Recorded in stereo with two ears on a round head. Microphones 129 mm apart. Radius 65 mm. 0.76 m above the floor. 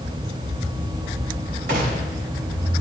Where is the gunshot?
75° right (ahead or behind), 4.5 m.